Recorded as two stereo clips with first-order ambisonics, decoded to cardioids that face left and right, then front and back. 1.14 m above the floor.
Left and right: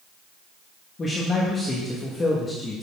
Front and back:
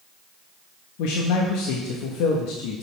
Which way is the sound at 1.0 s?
15° left.